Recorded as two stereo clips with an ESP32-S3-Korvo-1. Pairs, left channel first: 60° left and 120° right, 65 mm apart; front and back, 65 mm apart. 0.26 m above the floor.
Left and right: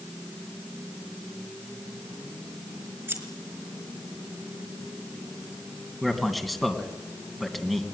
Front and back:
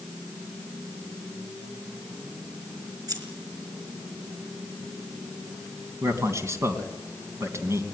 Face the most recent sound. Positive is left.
turn(degrees=150)